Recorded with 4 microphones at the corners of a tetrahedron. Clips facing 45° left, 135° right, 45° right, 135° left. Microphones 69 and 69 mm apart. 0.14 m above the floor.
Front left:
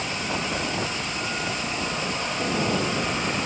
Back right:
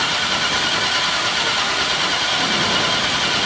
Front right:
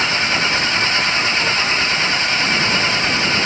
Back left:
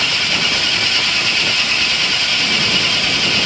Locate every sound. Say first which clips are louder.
0.0 s an engine running: back right 7 dB, front right 2 dB; 110° right